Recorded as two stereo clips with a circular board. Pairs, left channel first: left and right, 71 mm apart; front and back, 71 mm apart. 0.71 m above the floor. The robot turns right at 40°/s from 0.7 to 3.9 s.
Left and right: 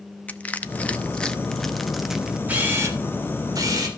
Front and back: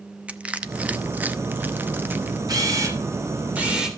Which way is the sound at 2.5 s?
155° right.